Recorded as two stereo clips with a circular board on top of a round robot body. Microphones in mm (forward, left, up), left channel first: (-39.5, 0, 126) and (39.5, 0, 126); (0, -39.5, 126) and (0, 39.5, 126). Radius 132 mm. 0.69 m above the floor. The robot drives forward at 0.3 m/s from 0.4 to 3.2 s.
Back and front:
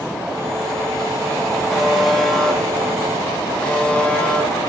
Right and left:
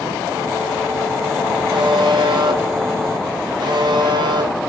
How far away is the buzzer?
About 1.7 m.